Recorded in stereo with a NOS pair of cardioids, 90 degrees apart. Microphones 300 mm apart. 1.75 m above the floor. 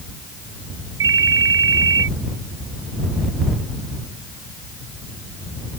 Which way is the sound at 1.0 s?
45° right.